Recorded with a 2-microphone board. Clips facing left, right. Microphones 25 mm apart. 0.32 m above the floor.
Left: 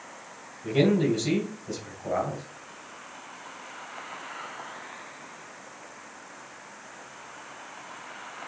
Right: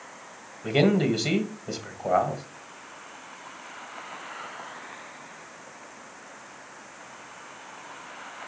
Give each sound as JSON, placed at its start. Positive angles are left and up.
{"t": 0.6, "sound": "a man speaking", "side_deg": -45, "distance_m": 2.0}